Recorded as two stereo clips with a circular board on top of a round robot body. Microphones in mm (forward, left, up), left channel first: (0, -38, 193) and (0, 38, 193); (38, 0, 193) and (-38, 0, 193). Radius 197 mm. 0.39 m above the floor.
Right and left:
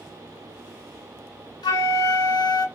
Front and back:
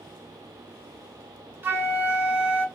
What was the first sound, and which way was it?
A flute, 115° right.